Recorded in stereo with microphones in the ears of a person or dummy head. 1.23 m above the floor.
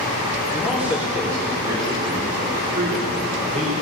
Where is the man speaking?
Centre (ahead or behind), 1.7 m; by 3.7 s 45° right (ahead or behind), 3 m.